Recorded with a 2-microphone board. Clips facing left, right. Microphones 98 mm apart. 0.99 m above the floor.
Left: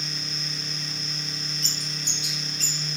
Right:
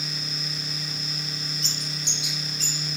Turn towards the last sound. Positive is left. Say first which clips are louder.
# right 1 dB
turn(degrees=45)  # may be behind; listen again after turning